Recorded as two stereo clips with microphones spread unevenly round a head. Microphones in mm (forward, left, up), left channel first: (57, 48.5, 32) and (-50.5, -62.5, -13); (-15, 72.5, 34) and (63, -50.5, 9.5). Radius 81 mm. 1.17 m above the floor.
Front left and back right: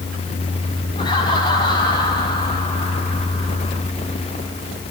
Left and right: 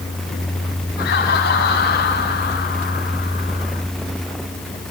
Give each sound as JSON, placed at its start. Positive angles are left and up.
{"t": 1.0, "sound": "laughter", "azimuth_deg": 110, "distance_m": 6.0}